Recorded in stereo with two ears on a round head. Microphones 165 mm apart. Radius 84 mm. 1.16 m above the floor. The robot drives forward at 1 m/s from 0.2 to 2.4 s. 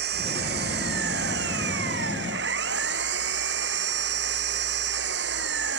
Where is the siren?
I don't hear a siren.